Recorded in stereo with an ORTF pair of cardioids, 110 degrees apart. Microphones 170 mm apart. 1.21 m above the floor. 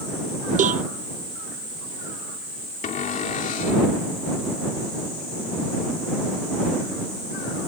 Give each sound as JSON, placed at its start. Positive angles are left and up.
{"t": 0.6, "sound": "a cowbell", "azimuth_deg": -50}
{"t": 2.8, "sound": "a cupboard door", "azimuth_deg": 50}